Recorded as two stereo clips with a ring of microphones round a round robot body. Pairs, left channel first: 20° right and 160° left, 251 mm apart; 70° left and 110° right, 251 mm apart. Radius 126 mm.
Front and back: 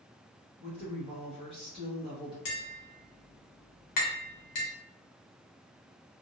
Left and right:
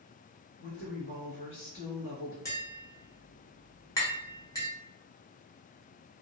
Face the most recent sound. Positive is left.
turn(degrees=-10)